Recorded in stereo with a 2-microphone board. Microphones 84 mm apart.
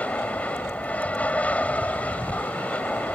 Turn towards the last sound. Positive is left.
turn(degrees=15)  # may be behind; listen again after turning